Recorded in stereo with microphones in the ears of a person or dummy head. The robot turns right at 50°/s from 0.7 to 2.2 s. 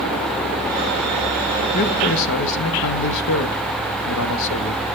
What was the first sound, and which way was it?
A man speaking, 50° left (ahead or behind).